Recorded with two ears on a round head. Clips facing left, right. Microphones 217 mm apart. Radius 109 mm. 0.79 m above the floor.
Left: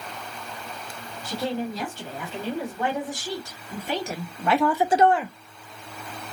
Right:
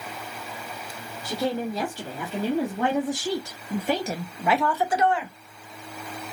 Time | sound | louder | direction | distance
1.2 | a woman speaking | right 1 dB | 75° right (ahead or behind) | 2.5 m